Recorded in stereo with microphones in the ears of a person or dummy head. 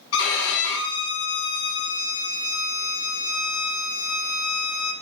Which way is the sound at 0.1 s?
70° left (ahead or behind).